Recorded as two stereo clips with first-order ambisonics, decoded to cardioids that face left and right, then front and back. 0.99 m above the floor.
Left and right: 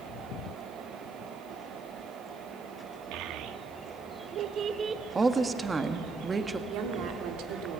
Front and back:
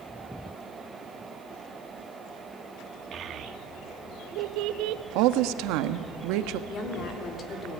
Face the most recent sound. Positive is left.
turn(degrees=-65)